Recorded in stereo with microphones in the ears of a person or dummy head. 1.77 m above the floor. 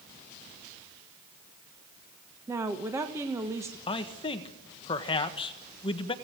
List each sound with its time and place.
2.5 s a woman speaking: 15° right (ahead or behind), 1.4 m
3.9 s a man speaking: 25° left (ahead or behind), 1.5 m